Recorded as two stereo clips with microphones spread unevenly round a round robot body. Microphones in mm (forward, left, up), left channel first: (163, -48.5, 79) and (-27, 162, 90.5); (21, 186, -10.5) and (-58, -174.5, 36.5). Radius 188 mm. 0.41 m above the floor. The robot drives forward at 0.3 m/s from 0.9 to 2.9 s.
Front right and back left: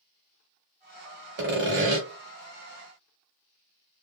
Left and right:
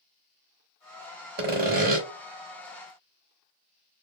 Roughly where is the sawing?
Behind.